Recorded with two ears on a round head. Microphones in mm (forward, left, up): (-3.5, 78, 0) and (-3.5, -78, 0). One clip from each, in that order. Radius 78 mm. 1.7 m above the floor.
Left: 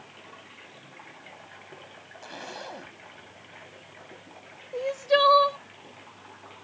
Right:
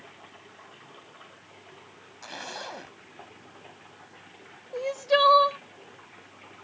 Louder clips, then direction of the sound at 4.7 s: Even; 15° right (ahead or behind).